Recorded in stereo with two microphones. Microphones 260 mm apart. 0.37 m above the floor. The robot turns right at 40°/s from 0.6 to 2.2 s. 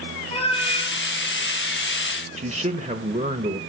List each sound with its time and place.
0.3 s a cat meowing: 25° left (ahead or behind), 3 m; by 0.9 s 35° left (ahead or behind), 3 m
2.4 s a man speaking: 30° right (ahead or behind), 1.4 m